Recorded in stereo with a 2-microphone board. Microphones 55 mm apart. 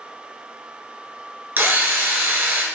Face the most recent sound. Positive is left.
turn(degrees=-40)  # may be behind; listen again after turning